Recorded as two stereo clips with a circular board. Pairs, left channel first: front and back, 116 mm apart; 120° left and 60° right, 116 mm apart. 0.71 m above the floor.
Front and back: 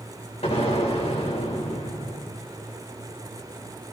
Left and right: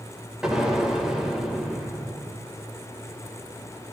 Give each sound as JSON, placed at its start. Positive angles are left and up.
{"t": 0.4, "sound": "an explosion", "azimuth_deg": 25, "distance_m": 3.5}